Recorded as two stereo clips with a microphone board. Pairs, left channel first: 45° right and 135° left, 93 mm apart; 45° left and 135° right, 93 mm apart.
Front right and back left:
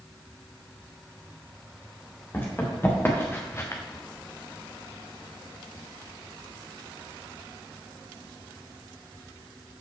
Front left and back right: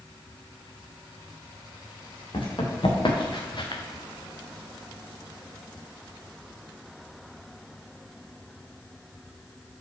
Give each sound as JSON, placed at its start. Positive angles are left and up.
{"t": 2.3, "sound": "running footsteps", "azimuth_deg": 20, "distance_m": 3.0}